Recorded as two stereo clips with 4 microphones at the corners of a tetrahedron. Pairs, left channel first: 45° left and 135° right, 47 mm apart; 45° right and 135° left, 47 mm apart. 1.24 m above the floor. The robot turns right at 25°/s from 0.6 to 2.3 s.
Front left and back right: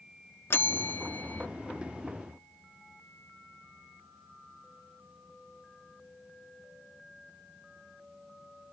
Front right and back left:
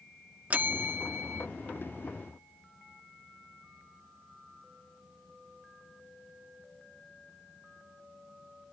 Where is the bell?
80° left; by 1.5 s 100° left.